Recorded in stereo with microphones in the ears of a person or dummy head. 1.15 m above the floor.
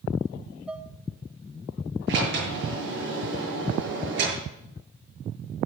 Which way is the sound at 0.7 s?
Centre (ahead or behind).